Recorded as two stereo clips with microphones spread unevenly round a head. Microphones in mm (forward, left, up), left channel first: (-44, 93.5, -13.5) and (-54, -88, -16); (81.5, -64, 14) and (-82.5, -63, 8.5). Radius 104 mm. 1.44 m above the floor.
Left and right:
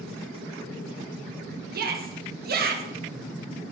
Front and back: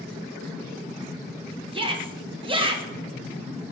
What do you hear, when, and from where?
1.7 s a shout: 125° right, 1.9 m